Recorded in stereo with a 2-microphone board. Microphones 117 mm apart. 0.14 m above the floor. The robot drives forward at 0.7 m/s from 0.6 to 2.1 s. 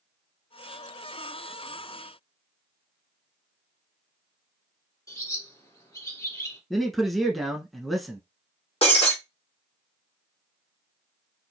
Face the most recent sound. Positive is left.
turn(degrees=55)  # may be behind; listen again after turning